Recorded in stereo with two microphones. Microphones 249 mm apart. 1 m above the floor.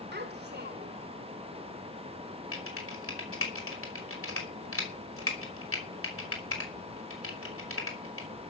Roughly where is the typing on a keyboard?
Left.